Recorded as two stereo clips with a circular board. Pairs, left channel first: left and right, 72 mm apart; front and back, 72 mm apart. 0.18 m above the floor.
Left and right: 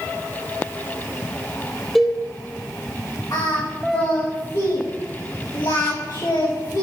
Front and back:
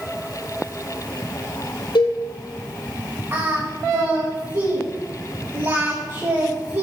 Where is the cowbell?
Straight ahead, 2 m.